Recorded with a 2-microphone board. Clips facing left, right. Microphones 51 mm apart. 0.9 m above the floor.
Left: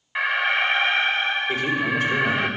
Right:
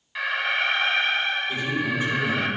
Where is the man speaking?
65° left (ahead or behind), 3 m.